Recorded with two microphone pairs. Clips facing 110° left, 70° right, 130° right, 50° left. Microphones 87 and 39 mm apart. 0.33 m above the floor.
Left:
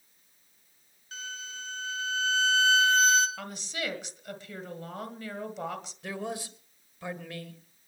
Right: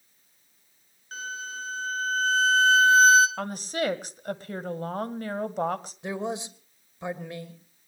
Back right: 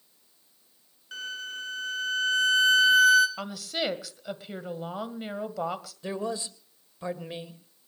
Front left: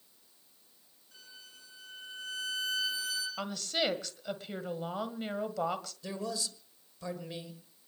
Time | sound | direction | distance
1.1 | a violin | 125° right | 1.4 m
3.4 | a woman speaking | 45° right | 1.6 m
6.0 | a man speaking | 110° right | 1.7 m